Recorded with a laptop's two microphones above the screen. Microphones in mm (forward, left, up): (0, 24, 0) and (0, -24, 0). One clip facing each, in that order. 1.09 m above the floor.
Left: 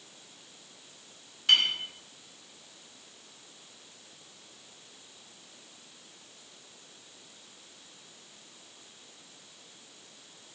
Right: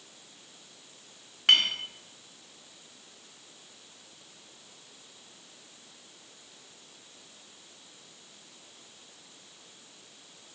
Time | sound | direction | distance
1.5 | a clink | 65° right (ahead or behind) | 1.3 m